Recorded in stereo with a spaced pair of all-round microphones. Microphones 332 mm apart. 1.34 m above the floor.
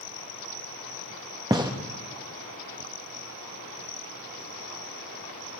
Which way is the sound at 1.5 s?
15° right (ahead or behind).